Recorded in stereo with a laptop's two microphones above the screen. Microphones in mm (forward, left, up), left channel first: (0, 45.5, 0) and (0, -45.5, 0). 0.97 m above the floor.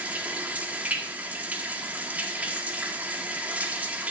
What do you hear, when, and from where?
0.0 s running water: 15° right (ahead or behind), 1.7 m